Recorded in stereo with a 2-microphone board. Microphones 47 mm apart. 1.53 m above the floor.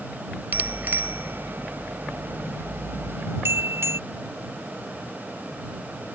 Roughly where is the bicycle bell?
Right.